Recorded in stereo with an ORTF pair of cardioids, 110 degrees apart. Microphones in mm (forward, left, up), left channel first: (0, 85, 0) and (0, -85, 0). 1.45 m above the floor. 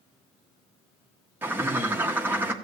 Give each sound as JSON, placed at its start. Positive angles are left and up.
{"t": 1.4, "sound": "a bird", "azimuth_deg": -10, "distance_m": 1.6}